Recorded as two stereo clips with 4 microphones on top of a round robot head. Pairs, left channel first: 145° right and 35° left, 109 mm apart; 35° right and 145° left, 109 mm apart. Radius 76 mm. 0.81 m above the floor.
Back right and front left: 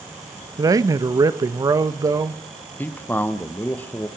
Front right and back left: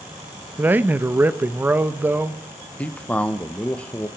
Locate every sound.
0.6 s a man speaking: 80° left, 0.6 m
2.8 s a man speaking: 95° right, 0.7 m